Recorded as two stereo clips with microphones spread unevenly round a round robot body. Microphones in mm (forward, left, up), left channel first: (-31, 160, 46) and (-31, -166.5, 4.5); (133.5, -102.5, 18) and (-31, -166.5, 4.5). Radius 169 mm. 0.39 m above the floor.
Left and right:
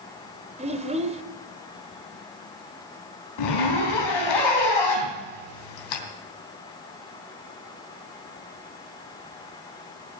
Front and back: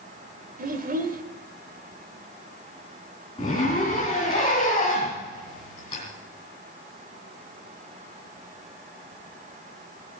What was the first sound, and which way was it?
A child speaking, 150° right.